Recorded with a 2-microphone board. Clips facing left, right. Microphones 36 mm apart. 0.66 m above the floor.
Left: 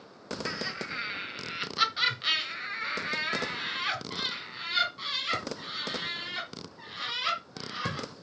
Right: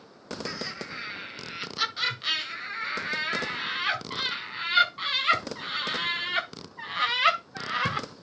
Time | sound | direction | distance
0.5 | laughter | 20° left (ahead or behind) | 3.5 m